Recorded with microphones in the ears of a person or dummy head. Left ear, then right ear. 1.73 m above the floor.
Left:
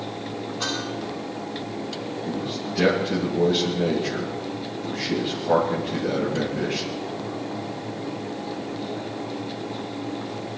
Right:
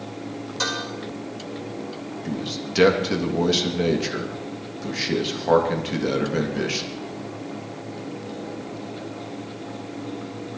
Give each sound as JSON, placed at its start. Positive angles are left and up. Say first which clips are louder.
{"t": 0.6, "sound": "dishes clattering", "louder": "right 3 dB", "side_deg": -80, "distance_m": 5.0}
{"t": 2.2, "sound": "a man speaking", "louder": "right 2 dB", "side_deg": -75, "distance_m": 3.0}